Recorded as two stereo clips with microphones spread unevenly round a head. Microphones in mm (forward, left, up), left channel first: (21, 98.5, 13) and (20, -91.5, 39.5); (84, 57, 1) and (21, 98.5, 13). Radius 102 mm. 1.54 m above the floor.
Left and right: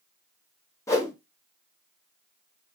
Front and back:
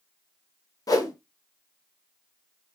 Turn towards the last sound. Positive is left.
turn(degrees=10)